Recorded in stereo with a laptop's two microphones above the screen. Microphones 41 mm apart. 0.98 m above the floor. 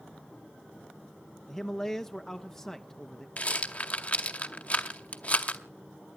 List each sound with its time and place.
1.5 s a man speaking: 15° left (ahead or behind), 1.2 m
3.4 s a rattle: 40° left (ahead or behind), 1.8 m